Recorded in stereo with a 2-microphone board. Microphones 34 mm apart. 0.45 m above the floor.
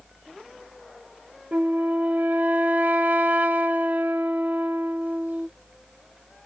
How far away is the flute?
About 0.6 m.